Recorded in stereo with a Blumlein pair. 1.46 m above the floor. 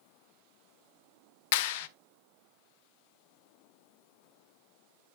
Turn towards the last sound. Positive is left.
turn(degrees=50)